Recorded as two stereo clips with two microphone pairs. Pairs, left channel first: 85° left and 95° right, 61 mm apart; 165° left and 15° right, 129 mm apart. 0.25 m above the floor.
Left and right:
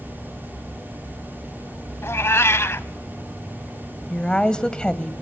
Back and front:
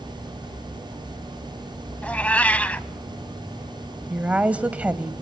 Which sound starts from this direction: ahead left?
A woman speaking, at 4.1 s.